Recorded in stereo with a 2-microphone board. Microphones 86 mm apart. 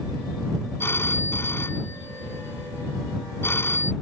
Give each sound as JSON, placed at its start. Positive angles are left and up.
{"t": 0.8, "sound": "a phone ringing", "side_deg": 25}